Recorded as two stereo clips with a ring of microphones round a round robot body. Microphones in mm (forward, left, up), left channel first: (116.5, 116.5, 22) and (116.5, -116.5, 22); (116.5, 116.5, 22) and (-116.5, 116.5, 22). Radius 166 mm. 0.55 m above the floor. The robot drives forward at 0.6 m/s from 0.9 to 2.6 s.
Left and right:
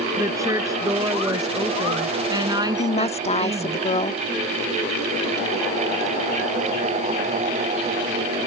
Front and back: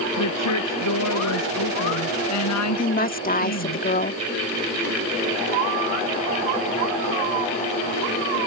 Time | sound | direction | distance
0.2 | a woman speaking | 15° right | ?
2.8 | a woman speaking | 35° left | ?